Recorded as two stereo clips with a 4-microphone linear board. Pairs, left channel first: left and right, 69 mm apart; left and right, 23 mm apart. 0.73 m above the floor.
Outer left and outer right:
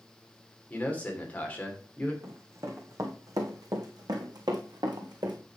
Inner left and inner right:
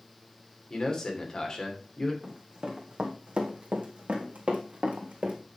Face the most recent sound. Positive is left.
turn(degrees=-75)  # may be behind; listen again after turning